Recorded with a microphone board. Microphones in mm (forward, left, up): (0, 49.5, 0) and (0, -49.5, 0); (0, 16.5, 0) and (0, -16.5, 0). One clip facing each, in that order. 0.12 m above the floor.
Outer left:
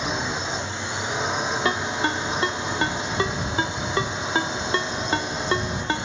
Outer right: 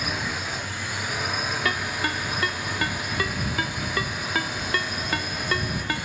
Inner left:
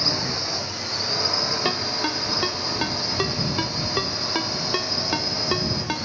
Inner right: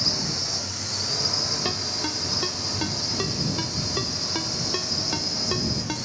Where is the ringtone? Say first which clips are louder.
Outer left 3 dB, inner left 4 dB; 25° left (ahead or behind).